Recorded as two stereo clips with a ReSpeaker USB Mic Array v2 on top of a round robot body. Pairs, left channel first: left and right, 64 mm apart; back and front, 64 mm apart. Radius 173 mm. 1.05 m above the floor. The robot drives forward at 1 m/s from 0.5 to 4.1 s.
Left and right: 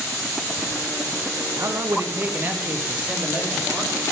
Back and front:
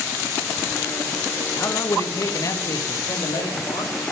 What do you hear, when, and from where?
1.6 s a man speaking: 130° right, 1.7 m; by 4.0 s 160° right, 3.5 m